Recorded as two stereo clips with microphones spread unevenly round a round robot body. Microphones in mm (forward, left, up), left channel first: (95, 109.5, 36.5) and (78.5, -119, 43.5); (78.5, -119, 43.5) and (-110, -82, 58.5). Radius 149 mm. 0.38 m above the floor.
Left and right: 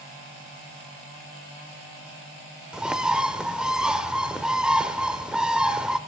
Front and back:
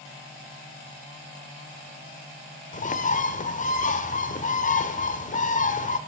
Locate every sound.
2.7 s a bird: 5° right, 1.0 m